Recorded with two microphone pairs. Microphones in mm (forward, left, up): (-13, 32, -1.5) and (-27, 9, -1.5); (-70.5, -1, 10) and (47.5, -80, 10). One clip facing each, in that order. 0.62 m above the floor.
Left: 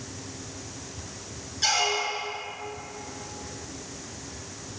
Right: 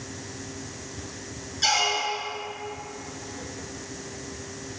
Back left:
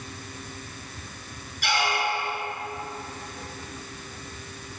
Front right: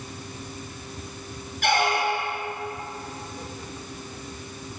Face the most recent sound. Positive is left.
turn(degrees=-40)